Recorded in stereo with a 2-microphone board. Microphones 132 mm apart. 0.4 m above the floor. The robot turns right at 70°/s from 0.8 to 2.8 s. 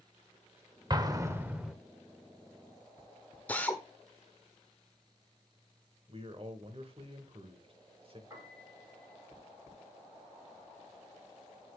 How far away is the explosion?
About 1.0 m.